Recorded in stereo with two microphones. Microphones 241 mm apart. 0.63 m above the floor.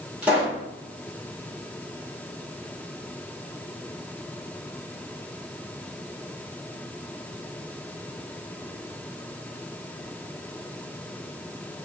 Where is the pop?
5° right (ahead or behind), 1.2 m.